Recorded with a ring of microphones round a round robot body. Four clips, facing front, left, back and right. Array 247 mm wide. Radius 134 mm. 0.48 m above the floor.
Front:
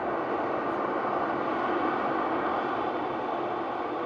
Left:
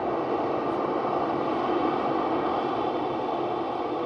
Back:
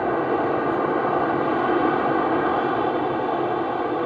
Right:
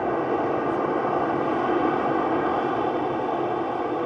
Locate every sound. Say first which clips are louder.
0.0 s an aircraft: right 3 dB, back 7 dB; 160° right